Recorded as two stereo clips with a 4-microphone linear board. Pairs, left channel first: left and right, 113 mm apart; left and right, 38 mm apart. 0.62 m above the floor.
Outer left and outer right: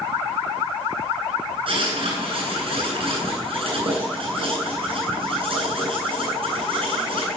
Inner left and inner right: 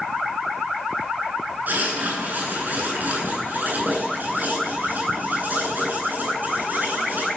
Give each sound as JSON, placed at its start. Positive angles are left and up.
{"t": 1.7, "sound": "writing", "side_deg": -55, "distance_m": 10.0}